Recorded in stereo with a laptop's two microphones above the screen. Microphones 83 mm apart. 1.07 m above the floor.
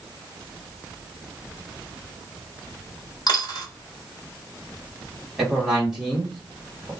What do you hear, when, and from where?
3.3 s a dropped coin: 55° left (ahead or behind), 1.2 m
5.4 s a man speaking: 5° right (ahead or behind), 1.8 m